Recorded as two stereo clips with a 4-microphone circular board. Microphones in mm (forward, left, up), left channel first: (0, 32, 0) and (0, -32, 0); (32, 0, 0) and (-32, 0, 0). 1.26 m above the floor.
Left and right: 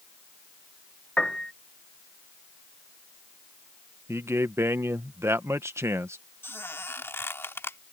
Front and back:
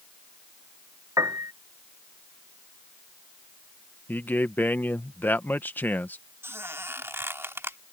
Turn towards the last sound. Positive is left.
turn(degrees=140)